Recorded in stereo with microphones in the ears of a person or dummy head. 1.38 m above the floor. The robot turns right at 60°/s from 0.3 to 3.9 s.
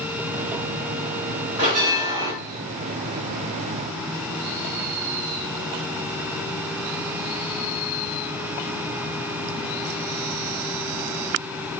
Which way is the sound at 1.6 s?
155° right.